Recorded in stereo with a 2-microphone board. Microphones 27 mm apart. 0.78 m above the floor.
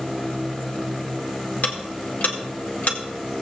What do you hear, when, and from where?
1.6 s ticking: 70° left (ahead or behind), 1.8 m